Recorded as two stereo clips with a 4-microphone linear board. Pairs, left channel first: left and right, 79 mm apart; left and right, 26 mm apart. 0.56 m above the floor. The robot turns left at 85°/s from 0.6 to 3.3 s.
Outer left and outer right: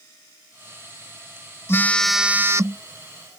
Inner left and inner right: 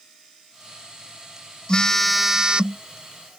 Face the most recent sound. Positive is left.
turn(degrees=-100)